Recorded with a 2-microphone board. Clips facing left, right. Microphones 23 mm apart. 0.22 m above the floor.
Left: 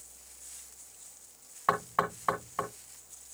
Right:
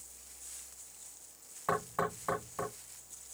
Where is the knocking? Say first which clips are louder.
Left 4 dB; 35° left (ahead or behind), 2 m.